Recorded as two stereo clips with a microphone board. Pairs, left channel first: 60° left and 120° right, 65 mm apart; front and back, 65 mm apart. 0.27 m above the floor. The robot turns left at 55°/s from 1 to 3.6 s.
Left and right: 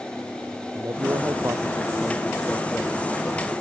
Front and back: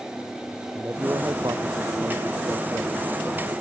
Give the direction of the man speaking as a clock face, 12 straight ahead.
5 o'clock.